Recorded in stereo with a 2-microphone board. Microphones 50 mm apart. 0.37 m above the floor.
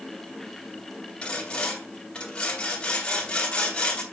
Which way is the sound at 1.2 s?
25° left (ahead or behind).